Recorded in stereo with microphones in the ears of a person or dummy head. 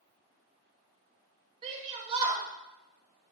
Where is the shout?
20° right (ahead or behind), 2.5 m.